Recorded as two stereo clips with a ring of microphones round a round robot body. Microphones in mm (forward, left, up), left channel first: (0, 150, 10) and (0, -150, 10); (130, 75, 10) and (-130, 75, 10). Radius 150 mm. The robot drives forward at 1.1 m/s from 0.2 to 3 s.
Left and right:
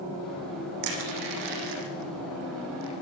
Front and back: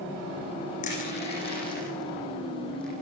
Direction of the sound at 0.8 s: 65° right.